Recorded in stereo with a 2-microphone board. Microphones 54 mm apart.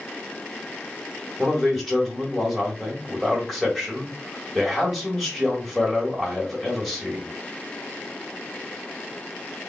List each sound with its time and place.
1.4 s a man speaking: centre (ahead or behind), 1.7 m